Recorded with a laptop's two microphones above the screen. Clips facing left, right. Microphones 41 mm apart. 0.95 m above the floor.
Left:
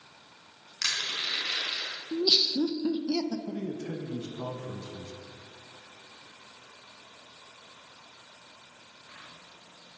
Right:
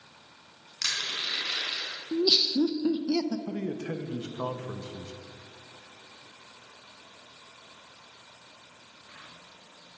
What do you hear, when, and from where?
0.8 s crushing: 10° left (ahead or behind), 3.5 m
2.1 s laughter: 15° right (ahead or behind), 0.8 m
3.5 s a man speaking: 50° right (ahead or behind), 1.3 m